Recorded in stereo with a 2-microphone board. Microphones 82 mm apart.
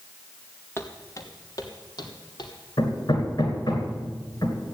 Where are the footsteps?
30° left (ahead or behind), 2 m; by 2.5 s 60° left (ahead or behind), 4 m.